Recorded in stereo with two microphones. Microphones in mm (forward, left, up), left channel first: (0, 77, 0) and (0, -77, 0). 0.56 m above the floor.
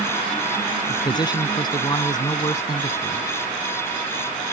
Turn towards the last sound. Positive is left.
turn(degrees=25)  # may be behind; listen again after turning